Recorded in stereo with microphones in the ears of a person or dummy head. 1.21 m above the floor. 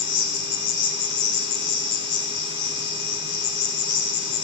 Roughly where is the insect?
Left.